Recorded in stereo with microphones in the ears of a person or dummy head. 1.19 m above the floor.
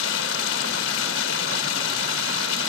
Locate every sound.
0.0 s running water: 80° left